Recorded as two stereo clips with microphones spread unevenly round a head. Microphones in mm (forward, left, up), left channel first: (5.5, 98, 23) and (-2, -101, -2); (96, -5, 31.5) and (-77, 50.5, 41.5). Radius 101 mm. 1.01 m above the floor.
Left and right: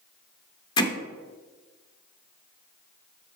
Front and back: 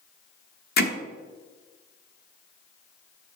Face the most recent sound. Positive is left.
turn(degrees=20)